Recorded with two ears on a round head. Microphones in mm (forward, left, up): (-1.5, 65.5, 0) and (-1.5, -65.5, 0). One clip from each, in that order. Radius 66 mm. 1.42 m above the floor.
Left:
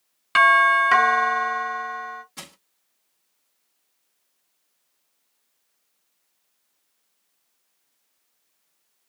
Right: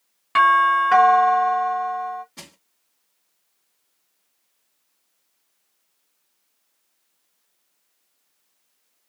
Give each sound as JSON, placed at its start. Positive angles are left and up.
{"t": 0.3, "sound": "a doorbell", "side_deg": 70, "distance_m": 2.0}
{"t": 2.4, "sound": "crushing", "side_deg": 45, "distance_m": 2.0}